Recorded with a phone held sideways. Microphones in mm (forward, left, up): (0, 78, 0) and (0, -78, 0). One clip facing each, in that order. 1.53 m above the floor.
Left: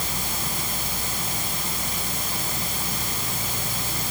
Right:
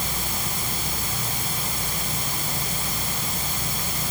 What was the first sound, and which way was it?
Only background noise.